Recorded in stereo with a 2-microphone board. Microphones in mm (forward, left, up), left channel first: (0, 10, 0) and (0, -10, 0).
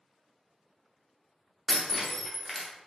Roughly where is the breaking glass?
Centre.